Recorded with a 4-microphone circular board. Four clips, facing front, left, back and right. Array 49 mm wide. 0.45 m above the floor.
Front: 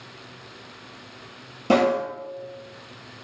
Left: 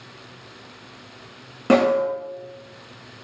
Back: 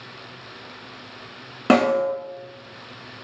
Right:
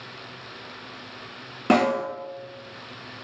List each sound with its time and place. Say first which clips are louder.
1.7 s a snare drum: left 4 dB, back 2 dB; 175° right, 1.1 m